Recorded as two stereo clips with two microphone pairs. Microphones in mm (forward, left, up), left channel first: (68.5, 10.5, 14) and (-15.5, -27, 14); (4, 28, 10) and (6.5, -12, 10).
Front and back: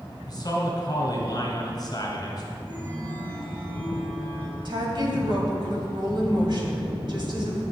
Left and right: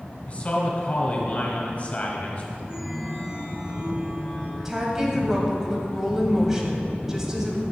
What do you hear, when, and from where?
0.3 s a man speaking: 50° left, 1.8 m
2.6 s a chime: 170° right, 1.9 m
4.7 s a woman speaking: 160° right, 1.7 m